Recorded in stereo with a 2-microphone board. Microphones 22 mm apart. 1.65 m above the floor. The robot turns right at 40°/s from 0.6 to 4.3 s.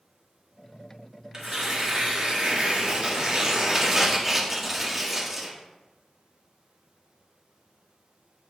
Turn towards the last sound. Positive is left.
turn(degrees=-15)